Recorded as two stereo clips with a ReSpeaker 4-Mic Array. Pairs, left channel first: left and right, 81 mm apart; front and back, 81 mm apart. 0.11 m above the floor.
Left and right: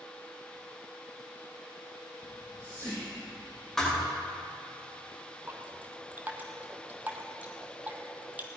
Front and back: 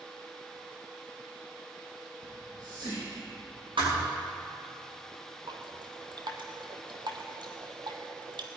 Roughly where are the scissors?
I don't hear scissors.